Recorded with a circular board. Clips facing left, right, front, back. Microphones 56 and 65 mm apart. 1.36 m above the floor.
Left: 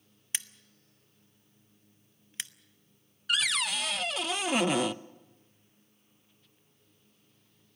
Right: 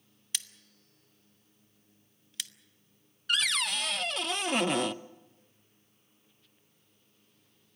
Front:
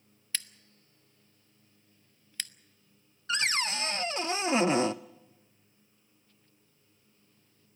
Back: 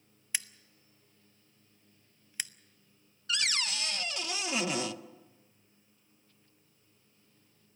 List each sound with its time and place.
0.3 s scissors: 115° left, 0.6 m
3.3 s a cupboard door: straight ahead, 0.5 m